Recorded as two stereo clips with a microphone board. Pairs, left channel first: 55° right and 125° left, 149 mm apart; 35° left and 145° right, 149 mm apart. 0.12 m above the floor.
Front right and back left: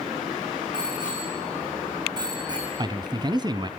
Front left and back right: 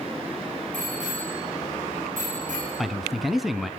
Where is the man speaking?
125° left, 1.2 m.